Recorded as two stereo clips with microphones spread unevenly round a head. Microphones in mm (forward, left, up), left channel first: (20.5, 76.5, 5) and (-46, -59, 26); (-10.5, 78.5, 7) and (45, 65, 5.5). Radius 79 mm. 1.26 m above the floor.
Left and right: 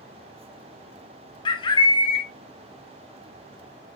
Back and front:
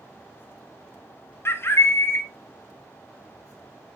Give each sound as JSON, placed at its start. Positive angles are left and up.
{"t": 1.4, "sound": "a bird", "azimuth_deg": 125, "distance_m": 1.1}